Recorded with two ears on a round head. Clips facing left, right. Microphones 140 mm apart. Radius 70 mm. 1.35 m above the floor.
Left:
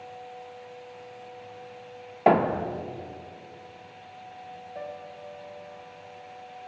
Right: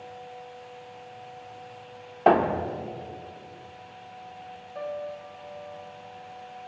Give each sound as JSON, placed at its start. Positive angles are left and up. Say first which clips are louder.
{"t": 2.3, "sound": "a thud", "louder": "right 1 dB", "side_deg": 5, "distance_m": 0.6}
{"t": 4.8, "sound": "a piano", "louder": "right 6 dB", "side_deg": 20, "distance_m": 1.0}